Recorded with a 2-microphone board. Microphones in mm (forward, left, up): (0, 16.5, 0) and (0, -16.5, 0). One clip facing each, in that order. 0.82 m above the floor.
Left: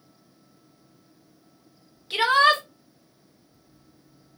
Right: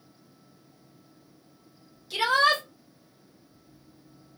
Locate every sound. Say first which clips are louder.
2.1 s a shout: left 4 dB; 40° left (ahead or behind), 0.6 m